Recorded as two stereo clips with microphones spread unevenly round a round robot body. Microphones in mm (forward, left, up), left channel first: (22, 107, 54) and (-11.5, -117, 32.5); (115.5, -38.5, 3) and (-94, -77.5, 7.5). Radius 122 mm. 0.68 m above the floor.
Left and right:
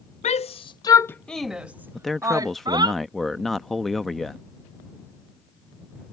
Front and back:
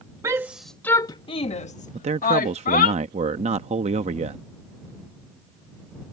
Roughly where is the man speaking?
Behind.